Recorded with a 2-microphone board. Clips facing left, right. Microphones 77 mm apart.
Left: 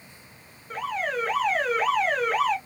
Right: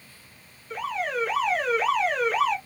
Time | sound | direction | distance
0.7 | an alarm | 40° left (ahead or behind) | 2.0 m